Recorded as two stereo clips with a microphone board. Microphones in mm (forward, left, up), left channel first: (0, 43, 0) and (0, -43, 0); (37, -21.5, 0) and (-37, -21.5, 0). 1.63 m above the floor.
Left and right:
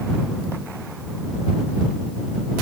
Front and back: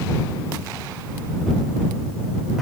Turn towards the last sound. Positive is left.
No sound to turn to.